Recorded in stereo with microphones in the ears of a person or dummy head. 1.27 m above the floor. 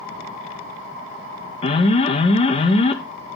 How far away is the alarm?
About 0.6 m.